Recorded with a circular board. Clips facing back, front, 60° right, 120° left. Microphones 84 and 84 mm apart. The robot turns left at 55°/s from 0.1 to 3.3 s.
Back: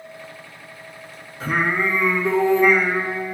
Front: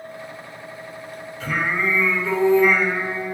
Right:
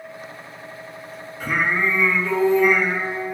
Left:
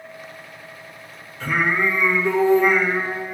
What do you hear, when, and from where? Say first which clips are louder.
1.4 s singing: back 2 dB, left 1 dB; 135° right, 1.8 m; by 3.4 s 120° left, 1.8 m